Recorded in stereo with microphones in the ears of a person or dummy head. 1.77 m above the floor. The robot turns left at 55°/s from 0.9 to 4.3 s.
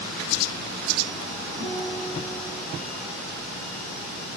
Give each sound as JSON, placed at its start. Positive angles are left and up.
{"t": 1.6, "sound": "a guitar", "azimuth_deg": -110, "distance_m": 7.5}